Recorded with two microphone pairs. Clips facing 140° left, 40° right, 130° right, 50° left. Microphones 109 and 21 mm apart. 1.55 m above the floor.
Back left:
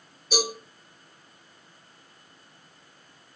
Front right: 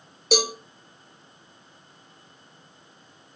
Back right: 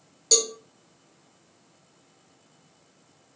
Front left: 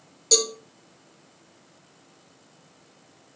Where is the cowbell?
40° right, 0.5 m.